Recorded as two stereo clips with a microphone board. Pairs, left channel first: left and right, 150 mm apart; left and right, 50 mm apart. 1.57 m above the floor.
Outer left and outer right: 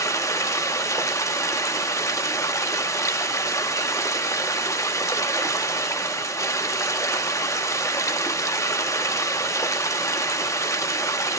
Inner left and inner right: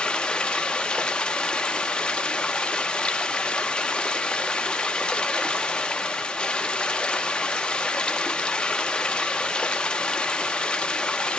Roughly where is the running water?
Left.